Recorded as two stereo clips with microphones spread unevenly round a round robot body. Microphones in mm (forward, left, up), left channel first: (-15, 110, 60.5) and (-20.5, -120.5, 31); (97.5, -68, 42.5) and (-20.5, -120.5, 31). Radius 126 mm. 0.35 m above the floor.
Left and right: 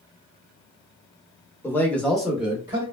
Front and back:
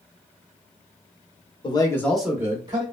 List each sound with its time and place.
1.6 s a man speaking: 5° left, 1.0 m; by 2.8 s 160° right, 1.1 m